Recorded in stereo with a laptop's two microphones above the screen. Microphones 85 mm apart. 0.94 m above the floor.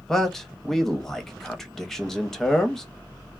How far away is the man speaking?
About 0.8 m.